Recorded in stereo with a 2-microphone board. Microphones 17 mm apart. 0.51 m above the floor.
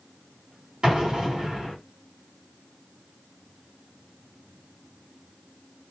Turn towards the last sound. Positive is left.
turn(degrees=-50)  # may be behind; listen again after turning